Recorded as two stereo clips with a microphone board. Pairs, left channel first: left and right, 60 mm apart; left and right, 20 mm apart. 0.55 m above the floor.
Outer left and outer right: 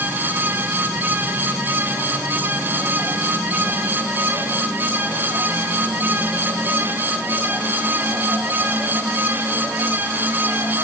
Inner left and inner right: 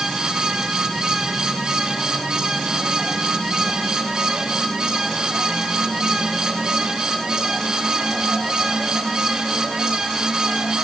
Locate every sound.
Only background noise.